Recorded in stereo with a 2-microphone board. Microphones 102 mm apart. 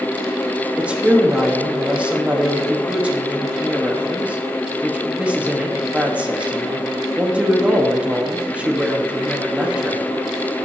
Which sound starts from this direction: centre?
A woman speaking, at 0.8 s.